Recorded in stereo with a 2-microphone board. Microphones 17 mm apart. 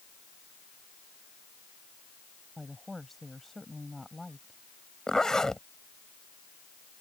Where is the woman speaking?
15° left (ahead or behind).